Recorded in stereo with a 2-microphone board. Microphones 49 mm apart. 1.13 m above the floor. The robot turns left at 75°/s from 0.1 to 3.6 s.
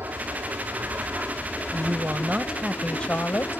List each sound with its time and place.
0.0 s an aircraft: 60° right; by 3.6 s 35° left
1.7 s a woman speaking: 105° right; by 3.6 s 115° left